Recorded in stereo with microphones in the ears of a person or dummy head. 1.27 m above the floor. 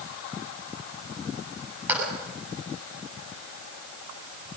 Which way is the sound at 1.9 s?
5° right (ahead or behind).